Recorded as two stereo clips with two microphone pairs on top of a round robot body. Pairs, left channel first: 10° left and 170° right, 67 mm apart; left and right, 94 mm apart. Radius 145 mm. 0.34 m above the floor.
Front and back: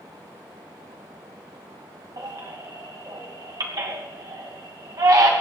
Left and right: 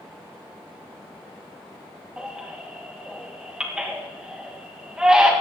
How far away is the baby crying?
About 3 m.